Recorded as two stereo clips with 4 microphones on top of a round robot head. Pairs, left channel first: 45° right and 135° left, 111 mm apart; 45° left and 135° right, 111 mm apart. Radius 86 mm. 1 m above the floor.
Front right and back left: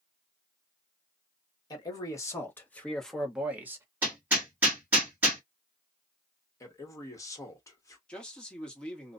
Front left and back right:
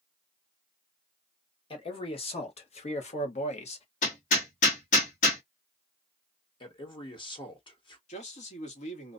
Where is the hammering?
55° left, 1.5 m.